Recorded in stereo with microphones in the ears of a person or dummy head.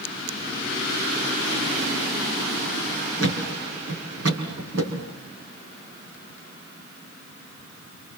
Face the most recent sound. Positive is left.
turn(degrees=-75)  # may be behind; listen again after turning